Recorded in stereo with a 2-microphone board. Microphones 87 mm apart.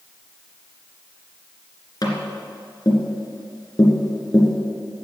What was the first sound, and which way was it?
Tapping, 50° left (ahead or behind).